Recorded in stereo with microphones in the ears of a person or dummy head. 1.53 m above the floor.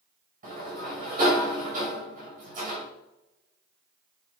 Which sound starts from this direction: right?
A sliding door, at 0.4 s.